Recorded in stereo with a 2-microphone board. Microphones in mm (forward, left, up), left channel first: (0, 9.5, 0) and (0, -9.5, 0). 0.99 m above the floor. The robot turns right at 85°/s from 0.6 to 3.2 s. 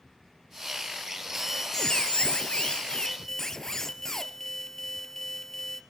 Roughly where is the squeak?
Ahead.